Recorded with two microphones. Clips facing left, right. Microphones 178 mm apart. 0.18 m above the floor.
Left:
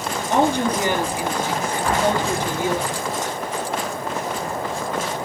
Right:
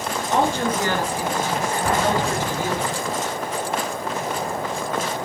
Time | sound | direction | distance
0.3 | a woman speaking | 15° left (ahead or behind) | 2.5 m
1.8 | an explosion | 45° right (ahead or behind) | 8.5 m